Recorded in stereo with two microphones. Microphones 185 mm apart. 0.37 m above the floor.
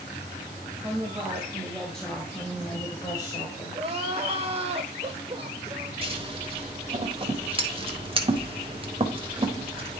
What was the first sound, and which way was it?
A woman speaking, 10° right (ahead or behind).